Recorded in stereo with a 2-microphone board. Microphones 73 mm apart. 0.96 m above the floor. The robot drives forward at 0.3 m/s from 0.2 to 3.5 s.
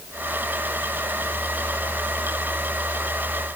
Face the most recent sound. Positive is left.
No sound to turn to.